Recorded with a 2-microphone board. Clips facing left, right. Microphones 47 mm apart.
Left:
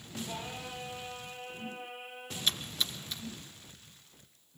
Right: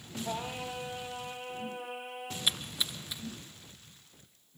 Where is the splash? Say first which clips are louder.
Even; 10° right (ahead or behind), 2.5 m.